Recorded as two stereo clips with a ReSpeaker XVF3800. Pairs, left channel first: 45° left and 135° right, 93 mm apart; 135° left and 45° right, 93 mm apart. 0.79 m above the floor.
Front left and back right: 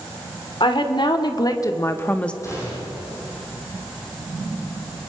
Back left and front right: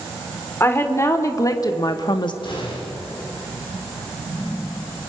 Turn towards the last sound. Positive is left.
turn(degrees=105)